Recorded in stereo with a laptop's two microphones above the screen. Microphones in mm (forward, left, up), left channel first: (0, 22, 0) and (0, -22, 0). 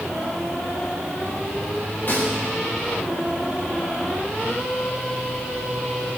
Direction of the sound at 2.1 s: 55° left (ahead or behind).